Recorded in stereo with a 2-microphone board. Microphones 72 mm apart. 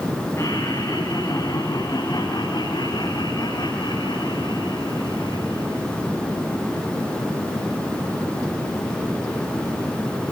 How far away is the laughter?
About 5.5 m.